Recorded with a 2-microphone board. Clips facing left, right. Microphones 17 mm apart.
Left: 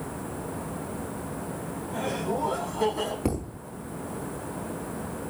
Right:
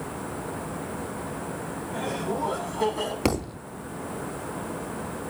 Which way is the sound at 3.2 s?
80° right.